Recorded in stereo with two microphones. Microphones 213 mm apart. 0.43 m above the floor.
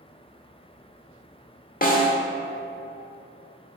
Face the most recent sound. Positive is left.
turn(degrees=40)  # may be behind; listen again after turning